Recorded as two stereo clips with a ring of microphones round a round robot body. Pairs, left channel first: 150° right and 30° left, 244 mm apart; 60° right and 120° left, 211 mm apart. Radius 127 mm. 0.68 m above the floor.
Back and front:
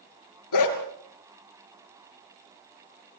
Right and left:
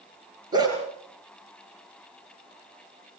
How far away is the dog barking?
About 3 m.